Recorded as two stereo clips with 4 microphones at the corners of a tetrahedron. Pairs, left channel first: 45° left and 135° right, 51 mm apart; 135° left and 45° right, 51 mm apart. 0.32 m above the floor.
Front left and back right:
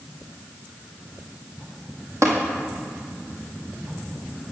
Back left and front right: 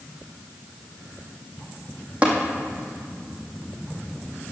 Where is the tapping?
110° right, 2.5 m.